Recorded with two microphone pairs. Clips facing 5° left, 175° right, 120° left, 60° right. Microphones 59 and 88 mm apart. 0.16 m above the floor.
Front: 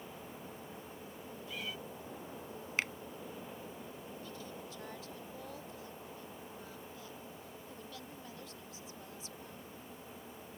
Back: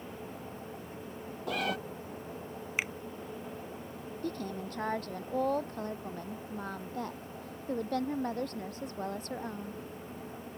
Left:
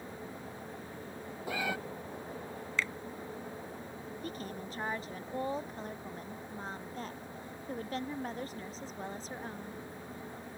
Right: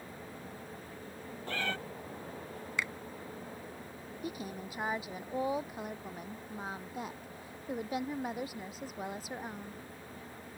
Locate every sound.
1.5 s a cat meowing: 160° right
2.8 s a finger snap: 110° right
4.2 s a woman speaking: 140° right